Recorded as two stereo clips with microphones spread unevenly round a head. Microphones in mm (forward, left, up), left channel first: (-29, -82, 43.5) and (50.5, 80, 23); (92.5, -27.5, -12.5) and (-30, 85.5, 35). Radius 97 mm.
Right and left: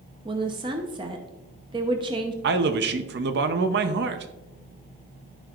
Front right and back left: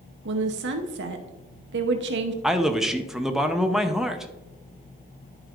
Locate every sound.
0.2 s a woman speaking: 125° left, 0.8 m
2.4 s a man speaking: 45° left, 0.6 m